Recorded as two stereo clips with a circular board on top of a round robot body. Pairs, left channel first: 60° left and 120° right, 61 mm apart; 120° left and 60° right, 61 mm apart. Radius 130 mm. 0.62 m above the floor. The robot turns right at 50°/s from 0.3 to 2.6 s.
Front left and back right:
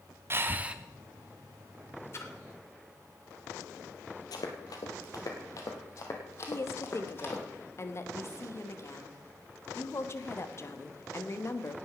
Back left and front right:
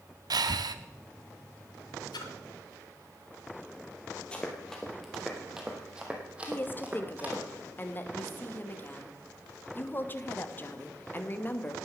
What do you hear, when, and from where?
0.3 s breathing: 70° right, 0.8 m; by 0.8 s 45° right, 0.8 m
2.1 s a splash: 110° left, 1.2 m; by 2.3 s 120° left, 1.2 m
4.3 s running footsteps: 45° left, 1.4 m; by 7.4 s 5° left, 2.5 m
6.5 s a woman speaking: 75° left, 1.5 m